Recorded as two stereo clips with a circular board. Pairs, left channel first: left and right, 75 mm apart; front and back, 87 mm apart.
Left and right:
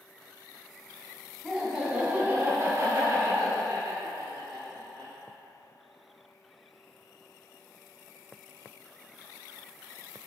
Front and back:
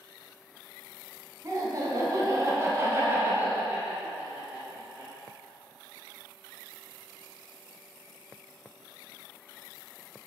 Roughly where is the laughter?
Behind.